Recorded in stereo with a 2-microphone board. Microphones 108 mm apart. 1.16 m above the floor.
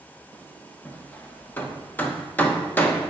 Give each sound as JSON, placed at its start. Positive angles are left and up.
{"t": 0.8, "sound": "hammering", "side_deg": 15, "distance_m": 0.9}